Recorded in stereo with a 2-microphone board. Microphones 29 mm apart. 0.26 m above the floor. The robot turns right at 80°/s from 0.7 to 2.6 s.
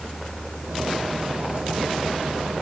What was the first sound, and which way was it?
Only background noise.